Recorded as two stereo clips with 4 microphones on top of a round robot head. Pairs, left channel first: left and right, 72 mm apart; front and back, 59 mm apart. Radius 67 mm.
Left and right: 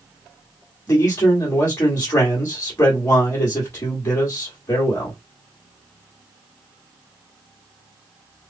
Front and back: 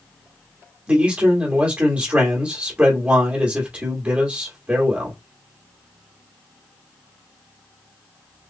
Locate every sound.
0.9 s a man speaking: 130° left, 1.9 m